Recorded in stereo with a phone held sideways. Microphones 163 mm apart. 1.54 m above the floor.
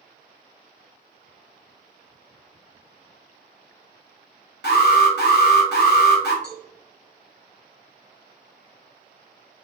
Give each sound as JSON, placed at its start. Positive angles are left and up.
{"t": 4.6, "sound": "an alarm", "side_deg": 75, "distance_m": 1.2}
{"t": 6.4, "sound": "a cowbell", "side_deg": 80, "distance_m": 1.7}